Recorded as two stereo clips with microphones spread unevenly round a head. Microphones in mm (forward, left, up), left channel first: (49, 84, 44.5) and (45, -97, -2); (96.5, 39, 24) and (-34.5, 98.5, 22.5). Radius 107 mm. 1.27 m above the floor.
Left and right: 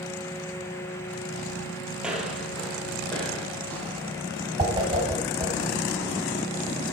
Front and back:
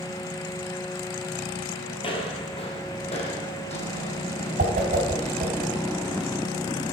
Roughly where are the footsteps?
Ahead.